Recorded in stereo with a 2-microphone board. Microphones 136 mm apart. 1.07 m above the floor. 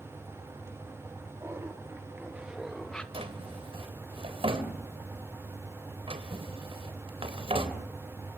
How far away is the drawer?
About 3 m.